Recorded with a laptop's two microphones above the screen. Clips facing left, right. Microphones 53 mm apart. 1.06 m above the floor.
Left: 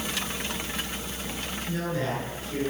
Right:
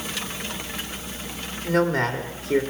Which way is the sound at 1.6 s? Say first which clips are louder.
Right 9 dB; 75° right (ahead or behind).